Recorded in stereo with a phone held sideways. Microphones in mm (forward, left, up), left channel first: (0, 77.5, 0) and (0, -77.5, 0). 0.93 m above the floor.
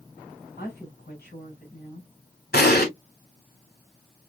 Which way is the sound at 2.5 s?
75° left (ahead or behind).